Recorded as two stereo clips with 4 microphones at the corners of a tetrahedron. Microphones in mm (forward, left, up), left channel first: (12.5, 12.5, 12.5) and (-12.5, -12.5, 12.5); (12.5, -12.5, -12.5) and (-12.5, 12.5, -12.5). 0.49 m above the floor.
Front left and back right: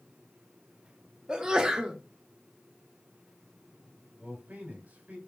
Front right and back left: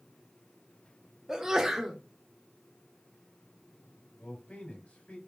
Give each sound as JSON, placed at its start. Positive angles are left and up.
{"t": 1.3, "sound": "a sneeze", "azimuth_deg": -170, "distance_m": 0.8}
{"t": 4.2, "sound": "a man speaking", "azimuth_deg": -95, "distance_m": 2.5}